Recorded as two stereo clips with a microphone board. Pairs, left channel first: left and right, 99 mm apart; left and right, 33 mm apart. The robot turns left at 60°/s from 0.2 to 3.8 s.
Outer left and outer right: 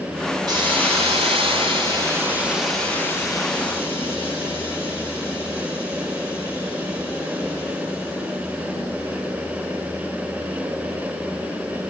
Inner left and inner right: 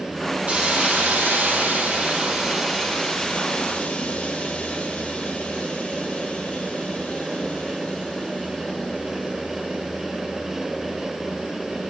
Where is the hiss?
50° right, 4.5 m; by 11.9 s 110° left, 4.5 m.